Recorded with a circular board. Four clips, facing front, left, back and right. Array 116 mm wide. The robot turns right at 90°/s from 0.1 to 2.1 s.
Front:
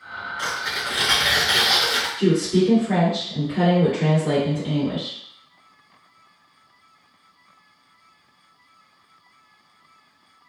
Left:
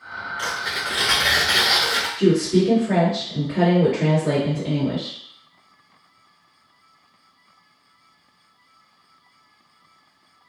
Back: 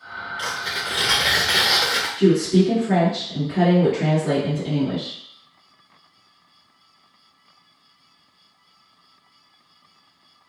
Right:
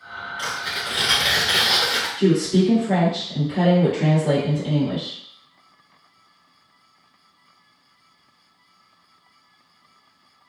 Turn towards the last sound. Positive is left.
turn(degrees=115)